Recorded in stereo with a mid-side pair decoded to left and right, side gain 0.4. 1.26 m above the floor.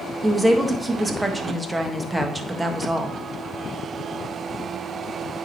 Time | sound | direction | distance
0.2 | a woman speaking | 15° right | 1.6 m